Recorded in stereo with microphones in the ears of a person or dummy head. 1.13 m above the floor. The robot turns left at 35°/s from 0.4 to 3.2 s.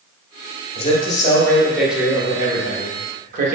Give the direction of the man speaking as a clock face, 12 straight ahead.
11 o'clock.